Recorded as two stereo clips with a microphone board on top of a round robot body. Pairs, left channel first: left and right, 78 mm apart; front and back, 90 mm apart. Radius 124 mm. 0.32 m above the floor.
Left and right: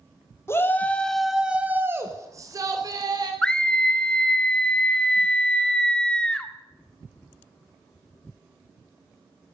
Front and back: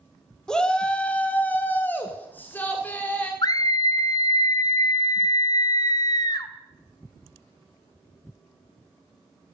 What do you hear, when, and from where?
0.5 s a shout: 75° left, 1.7 m; by 3.3 s 70° right, 3 m
3.4 s a scream: 15° left, 1.4 m